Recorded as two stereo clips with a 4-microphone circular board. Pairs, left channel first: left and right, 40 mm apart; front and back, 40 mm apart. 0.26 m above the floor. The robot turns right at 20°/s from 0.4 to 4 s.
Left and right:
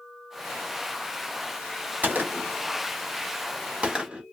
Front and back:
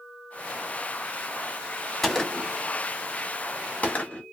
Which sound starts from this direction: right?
A gunshot, at 2.0 s.